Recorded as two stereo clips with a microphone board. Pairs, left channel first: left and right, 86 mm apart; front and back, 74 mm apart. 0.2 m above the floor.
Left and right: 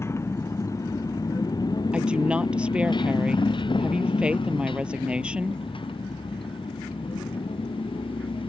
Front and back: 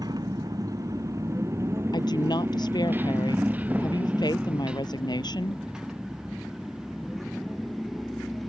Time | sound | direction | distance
0.0 | a motorcycle | 150° left | ?
1.9 | a woman speaking | 10° right | ?